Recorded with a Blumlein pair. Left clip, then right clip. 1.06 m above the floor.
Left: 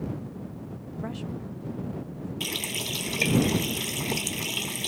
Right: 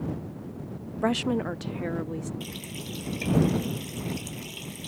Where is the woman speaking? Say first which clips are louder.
Right 13 dB; 30° right; by 2.3 s 45° right.